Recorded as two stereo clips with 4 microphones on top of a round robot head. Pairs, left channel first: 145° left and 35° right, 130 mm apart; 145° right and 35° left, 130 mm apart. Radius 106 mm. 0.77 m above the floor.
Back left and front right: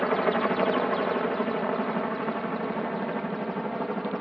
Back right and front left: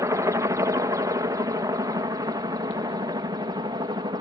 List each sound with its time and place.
0.0 s a helicopter: 65° left; by 4.2 s 60° left